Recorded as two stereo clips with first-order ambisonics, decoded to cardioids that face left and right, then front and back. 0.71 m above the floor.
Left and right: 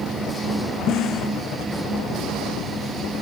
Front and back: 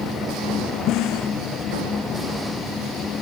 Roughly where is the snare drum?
Ahead left.